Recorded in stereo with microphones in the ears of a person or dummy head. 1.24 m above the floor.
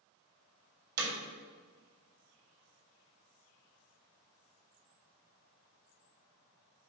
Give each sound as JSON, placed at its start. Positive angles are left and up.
{"t": 1.0, "sound": "hammering", "side_deg": -65, "distance_m": 2.5}